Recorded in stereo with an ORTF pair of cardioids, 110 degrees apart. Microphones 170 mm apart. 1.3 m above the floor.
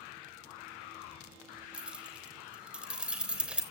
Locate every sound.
1.7 s keys jangling: 5° right, 3.5 m